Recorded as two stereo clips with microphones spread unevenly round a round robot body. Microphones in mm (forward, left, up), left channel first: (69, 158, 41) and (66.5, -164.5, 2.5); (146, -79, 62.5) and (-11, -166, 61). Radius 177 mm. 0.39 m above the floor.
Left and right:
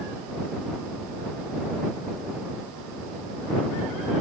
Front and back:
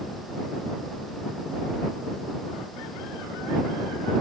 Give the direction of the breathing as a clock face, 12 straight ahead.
No breathing in this recording.